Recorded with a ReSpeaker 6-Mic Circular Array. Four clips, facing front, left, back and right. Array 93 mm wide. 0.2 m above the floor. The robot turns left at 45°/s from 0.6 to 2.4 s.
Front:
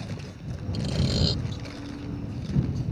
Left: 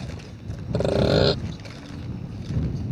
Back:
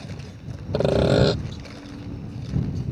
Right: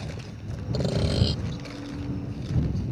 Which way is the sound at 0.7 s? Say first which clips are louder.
Left 8 dB, back 11 dB; 160° left.